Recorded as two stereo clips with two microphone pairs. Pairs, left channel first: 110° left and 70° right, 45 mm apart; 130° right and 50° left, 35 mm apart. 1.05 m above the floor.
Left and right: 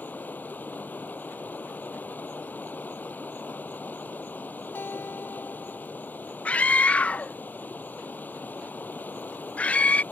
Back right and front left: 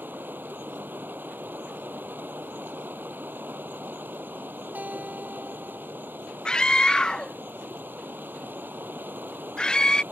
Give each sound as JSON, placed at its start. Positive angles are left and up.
{"t": 0.0, "sound": "running water", "azimuth_deg": 60}
{"t": 4.8, "sound": "a guitar", "azimuth_deg": 80}
{"t": 6.5, "sound": "a scream", "azimuth_deg": 165}